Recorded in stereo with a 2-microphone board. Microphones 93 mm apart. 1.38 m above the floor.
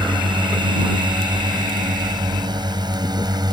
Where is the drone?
55° right (ahead or behind); by 3.5 s 50° right (ahead or behind).